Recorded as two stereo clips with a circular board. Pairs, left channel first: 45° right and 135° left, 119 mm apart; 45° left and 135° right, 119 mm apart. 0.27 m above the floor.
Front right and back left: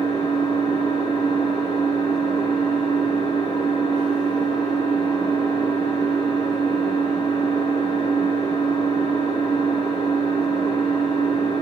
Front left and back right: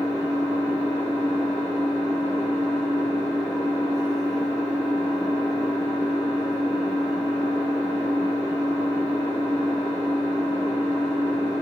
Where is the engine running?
85° right, 1.2 m.